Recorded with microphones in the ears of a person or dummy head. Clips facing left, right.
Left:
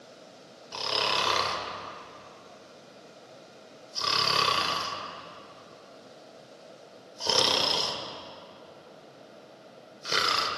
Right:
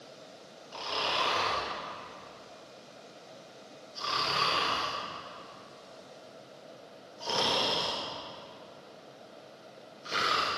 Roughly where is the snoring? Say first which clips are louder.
Left 3 dB; left.